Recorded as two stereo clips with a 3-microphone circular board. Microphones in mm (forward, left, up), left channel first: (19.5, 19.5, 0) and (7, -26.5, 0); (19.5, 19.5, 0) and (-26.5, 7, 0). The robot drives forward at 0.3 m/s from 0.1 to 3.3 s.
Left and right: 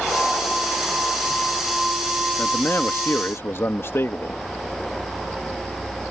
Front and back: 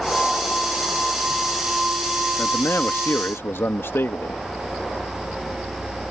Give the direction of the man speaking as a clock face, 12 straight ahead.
11 o'clock.